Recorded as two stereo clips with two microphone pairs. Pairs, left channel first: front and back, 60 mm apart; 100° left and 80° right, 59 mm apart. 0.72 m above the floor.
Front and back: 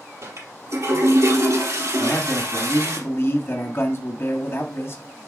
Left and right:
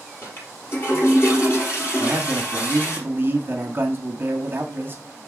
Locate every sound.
0.2 s a toilet flushing: 145° left, 4 m
2.0 s a man speaking: 35° right, 1.4 m